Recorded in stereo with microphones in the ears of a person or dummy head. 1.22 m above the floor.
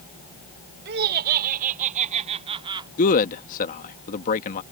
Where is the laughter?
45° right (ahead or behind); by 2.9 s 15° right (ahead or behind).